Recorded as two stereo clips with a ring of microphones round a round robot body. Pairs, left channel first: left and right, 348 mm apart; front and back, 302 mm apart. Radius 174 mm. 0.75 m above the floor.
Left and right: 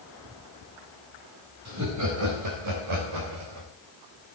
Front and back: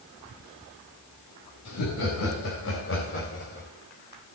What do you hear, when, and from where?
1.6 s laughter: 45° right, 5 m; by 3.7 s 70° right, 3 m